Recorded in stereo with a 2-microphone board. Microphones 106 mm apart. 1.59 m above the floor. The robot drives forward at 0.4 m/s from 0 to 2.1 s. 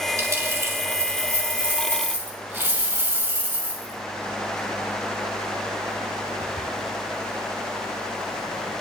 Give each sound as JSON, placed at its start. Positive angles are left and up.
{"t": 0.2, "sound": "a dropped coin", "side_deg": -30, "distance_m": 2.5}